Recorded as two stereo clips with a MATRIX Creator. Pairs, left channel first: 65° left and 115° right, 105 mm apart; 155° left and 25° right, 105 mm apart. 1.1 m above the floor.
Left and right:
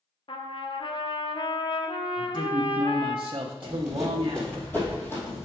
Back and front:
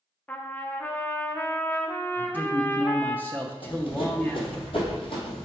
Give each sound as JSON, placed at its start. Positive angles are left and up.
{"t": 0.3, "sound": "a trumpet", "azimuth_deg": 85, "distance_m": 0.5}
{"t": 2.2, "sound": "a man speaking", "azimuth_deg": -130, "distance_m": 0.6}
{"t": 3.6, "sound": "running footsteps", "azimuth_deg": 170, "distance_m": 1.9}